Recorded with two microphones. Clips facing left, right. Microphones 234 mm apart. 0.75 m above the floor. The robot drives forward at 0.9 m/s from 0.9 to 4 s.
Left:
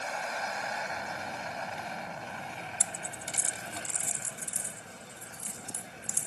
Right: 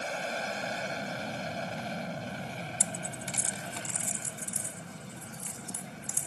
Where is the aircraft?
35° right (ahead or behind); by 6.3 s 40° right (ahead or behind).